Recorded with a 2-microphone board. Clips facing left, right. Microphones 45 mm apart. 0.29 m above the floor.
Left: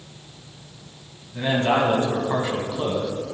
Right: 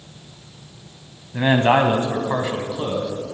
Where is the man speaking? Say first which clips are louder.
Right 4 dB; 50° right (ahead or behind), 1.7 m; by 3.1 s centre (ahead or behind), 2 m.